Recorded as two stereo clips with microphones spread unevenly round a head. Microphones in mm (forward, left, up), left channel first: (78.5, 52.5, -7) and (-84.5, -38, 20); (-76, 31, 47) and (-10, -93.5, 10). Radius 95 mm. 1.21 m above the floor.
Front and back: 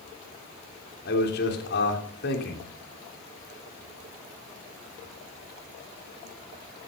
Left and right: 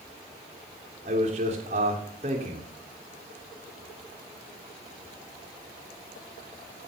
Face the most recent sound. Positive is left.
turn(degrees=-10)